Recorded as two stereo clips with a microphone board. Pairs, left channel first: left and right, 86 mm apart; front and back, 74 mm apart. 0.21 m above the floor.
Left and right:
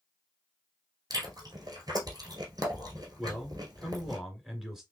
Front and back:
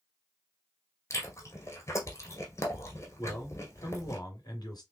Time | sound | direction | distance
1.1 | chewing | 50° right | 2 m
3.2 | a man speaking | 5° right | 2.5 m